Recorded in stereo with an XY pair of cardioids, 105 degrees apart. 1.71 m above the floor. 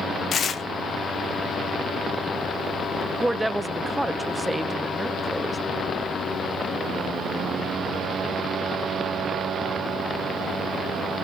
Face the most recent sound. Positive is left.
turn(degrees=0)